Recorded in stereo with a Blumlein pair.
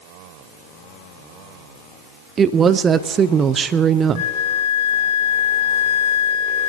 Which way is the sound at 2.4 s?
20° right.